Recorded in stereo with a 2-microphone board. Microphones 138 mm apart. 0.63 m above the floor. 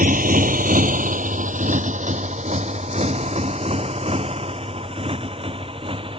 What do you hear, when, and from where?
0.0 s a motorcycle: 80° right; by 6.2 s 40° right (ahead or behind)